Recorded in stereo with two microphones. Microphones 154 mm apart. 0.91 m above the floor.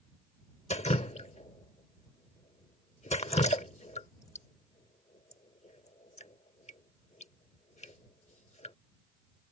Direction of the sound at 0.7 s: 50° left (ahead or behind).